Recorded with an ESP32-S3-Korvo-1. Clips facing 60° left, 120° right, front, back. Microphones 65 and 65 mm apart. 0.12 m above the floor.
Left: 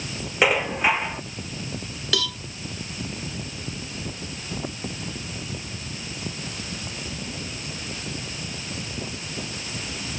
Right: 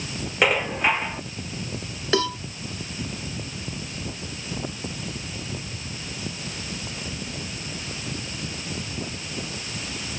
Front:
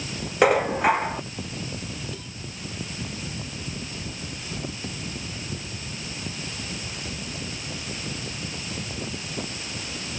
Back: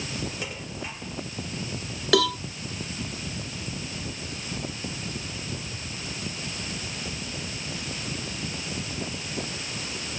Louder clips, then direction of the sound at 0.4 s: Left 1 dB, front 17 dB; 25° right.